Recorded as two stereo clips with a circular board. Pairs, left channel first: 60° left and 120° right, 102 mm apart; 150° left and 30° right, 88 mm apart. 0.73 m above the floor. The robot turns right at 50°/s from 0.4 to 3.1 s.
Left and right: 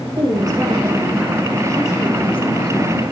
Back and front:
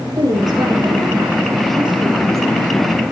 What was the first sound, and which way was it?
A woman speaking, 75° right.